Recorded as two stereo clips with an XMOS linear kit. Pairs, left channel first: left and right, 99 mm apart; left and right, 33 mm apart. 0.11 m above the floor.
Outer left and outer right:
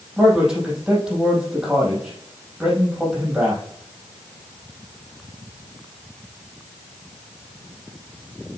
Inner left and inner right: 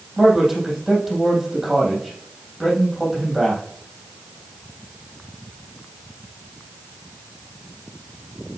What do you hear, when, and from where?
0.2 s a man speaking: 5° right (ahead or behind), 4 m